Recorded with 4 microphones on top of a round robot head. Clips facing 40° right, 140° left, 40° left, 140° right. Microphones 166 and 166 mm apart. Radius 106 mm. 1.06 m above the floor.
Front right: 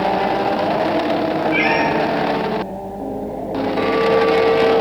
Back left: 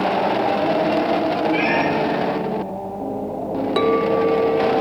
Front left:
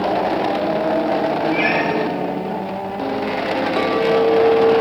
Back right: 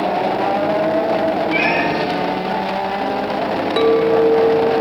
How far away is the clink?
About 0.6 m.